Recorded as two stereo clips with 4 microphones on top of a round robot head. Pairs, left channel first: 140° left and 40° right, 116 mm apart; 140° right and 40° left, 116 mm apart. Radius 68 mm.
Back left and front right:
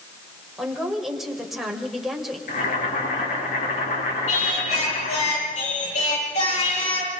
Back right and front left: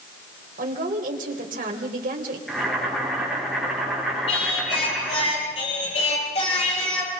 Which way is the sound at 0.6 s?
50° left.